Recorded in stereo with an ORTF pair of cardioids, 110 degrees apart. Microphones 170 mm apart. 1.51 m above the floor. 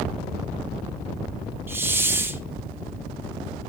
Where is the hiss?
15° right, 1.8 m.